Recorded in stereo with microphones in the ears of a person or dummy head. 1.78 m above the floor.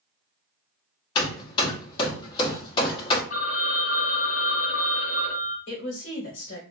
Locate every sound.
1.1 s hammering: 25° left (ahead or behind), 0.8 m
3.3 s a phone ringing: 50° left (ahead or behind), 1.9 m
5.7 s a woman speaking: 65° left (ahead or behind), 1.4 m